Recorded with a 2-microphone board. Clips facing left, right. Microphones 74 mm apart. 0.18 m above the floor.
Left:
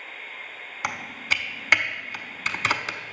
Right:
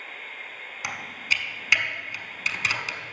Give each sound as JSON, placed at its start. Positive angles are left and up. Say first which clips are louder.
{"t": 0.8, "sound": "typing on a keyboard", "louder": "left 2 dB", "side_deg": 50, "distance_m": 0.6}